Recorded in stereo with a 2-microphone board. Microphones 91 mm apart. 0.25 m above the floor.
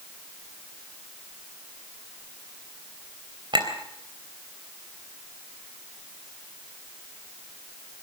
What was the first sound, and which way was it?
A clink, 50° right (ahead or behind).